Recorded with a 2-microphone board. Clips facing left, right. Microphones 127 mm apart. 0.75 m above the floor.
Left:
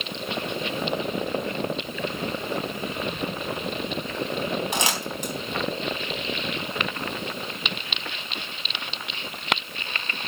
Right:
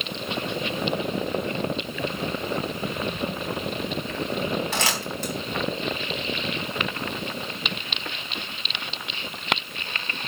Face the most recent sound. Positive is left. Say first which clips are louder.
# even
turn(degrees=15)  # may be behind; listen again after turning